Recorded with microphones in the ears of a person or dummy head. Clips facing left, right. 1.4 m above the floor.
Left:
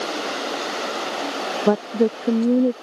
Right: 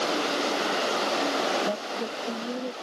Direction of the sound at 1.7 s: 85° left.